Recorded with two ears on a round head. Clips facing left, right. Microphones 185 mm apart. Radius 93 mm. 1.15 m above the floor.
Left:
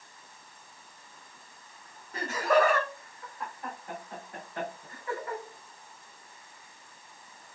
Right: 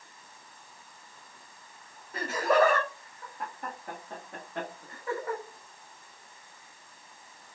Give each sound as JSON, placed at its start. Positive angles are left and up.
{"t": 2.1, "sound": "laughter", "side_deg": -5, "distance_m": 0.7}